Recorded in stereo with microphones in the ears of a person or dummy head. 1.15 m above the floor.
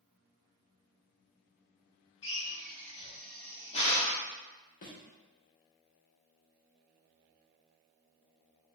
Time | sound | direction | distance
2.2 | a drill | 30° left (ahead or behind) | 0.6 m
4.8 | a thud | 35° left (ahead or behind) | 0.6 m